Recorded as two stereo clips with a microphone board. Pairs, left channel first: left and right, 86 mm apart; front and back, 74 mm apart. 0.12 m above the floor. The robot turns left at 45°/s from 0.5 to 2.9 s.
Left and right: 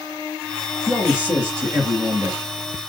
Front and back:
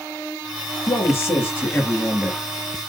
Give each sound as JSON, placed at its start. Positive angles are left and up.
{"t": 0.9, "sound": "a man speaking", "azimuth_deg": -10, "distance_m": 2.0}